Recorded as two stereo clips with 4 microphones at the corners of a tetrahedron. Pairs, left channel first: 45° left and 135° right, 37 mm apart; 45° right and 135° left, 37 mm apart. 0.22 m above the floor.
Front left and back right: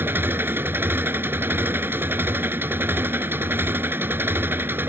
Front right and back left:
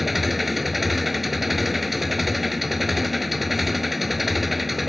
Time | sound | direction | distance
0.0 | an engine running | 135° right | ?